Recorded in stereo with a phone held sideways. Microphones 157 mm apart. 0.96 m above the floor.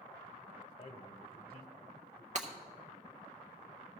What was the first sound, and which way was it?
A man speaking, 40° left (ahead or behind).